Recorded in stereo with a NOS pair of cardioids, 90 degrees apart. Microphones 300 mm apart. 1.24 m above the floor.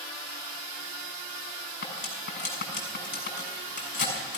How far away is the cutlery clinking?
About 6 m.